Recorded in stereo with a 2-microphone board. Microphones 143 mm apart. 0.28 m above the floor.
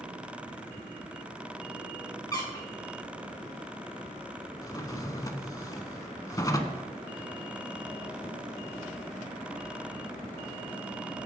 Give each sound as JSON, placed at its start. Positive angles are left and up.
{"t": 2.3, "sound": "a squeak", "side_deg": 25, "distance_m": 1.7}
{"t": 4.6, "sound": "a drawer", "side_deg": 25, "distance_m": 0.5}